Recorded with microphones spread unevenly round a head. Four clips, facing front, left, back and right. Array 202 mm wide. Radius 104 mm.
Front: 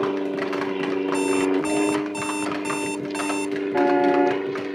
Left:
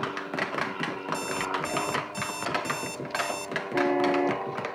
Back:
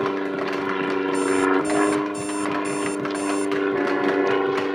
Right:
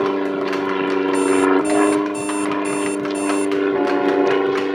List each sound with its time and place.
0.0 s an aircraft: 65° right; by 4.8 s 90° right
1.1 s an alarm clock: 15° right
3.7 s a car horn: 20° right